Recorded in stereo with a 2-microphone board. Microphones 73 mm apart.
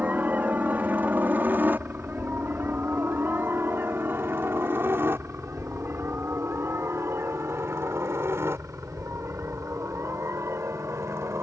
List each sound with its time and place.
0.0 s a helicopter: 20° right (ahead or behind); by 11.4 s 35° right (ahead or behind)